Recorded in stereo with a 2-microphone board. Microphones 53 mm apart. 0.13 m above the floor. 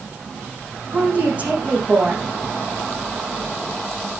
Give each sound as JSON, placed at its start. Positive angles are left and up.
{"t": 0.9, "sound": "a woman speaking", "side_deg": -25, "distance_m": 7.0}